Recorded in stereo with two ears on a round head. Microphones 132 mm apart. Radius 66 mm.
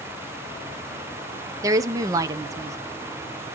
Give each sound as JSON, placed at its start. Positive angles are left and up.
{"t": 1.6, "sound": "a woman speaking", "side_deg": -25, "distance_m": 0.8}